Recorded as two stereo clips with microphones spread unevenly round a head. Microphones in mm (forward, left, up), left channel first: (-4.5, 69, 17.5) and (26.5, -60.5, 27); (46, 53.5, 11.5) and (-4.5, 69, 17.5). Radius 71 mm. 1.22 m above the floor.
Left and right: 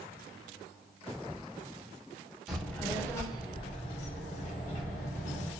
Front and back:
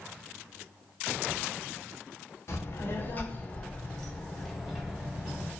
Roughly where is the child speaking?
Ahead.